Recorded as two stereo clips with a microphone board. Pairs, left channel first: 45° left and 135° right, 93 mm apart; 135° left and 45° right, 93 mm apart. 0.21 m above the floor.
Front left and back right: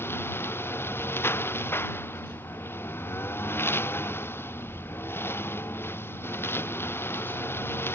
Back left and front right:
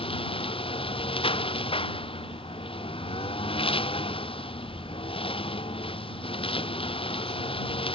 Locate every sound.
0.0 s a lawn mower: 115° left